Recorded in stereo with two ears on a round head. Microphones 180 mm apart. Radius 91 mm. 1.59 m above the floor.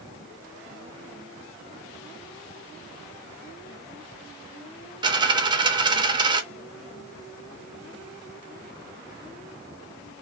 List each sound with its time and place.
5.0 s a dropped coin: 20° right (ahead or behind), 1.0 m